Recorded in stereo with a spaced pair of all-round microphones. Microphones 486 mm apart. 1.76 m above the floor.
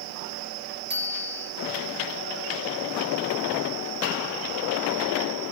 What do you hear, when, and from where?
0.9 s a bicycle bell: 20° right (ahead or behind), 3 m